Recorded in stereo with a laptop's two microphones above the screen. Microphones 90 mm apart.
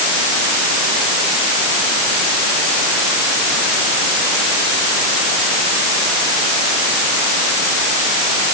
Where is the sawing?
I don't hear sawing.